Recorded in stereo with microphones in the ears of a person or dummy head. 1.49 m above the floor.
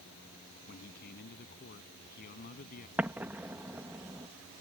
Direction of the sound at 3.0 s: 10° right (ahead or behind).